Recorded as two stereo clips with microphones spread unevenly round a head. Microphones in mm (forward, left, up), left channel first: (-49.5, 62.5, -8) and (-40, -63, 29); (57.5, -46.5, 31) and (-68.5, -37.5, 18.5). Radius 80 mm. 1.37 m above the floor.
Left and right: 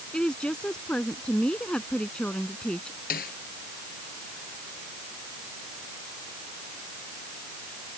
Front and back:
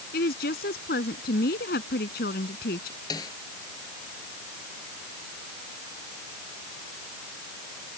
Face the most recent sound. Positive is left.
turn(degrees=65)